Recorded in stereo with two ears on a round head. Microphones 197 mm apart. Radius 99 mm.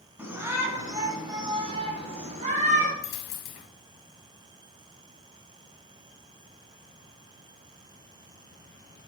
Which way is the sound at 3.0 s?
60° left (ahead or behind).